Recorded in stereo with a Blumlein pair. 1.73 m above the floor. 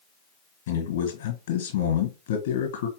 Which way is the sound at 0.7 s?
60° left.